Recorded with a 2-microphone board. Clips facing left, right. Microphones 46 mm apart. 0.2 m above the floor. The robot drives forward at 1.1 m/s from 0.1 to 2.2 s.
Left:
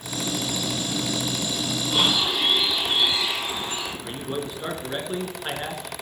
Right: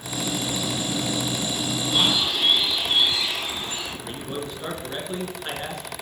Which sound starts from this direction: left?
A bird, at 1.9 s.